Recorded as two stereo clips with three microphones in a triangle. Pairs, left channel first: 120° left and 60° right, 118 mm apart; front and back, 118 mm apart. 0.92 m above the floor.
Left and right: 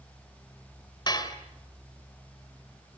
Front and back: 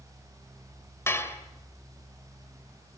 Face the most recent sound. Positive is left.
turn(degrees=70)